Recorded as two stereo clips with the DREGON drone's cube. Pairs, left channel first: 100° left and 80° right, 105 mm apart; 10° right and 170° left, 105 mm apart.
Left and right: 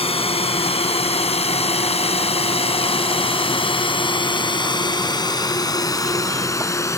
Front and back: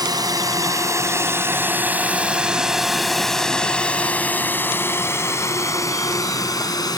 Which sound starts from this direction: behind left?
A drone, at 0.0 s.